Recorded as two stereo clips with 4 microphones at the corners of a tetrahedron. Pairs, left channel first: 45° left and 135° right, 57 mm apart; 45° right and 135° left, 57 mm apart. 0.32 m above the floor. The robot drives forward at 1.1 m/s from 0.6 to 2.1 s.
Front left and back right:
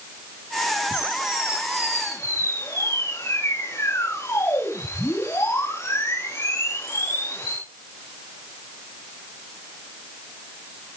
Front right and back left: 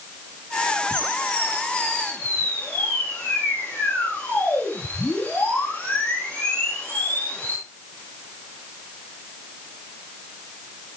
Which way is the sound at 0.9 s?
20° left.